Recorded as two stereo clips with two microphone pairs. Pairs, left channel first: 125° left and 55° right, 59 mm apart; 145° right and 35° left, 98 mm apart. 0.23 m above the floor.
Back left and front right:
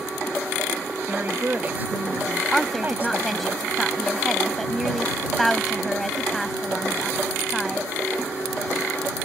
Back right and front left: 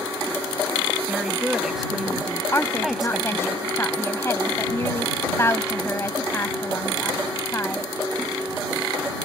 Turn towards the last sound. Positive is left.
turn(degrees=-155)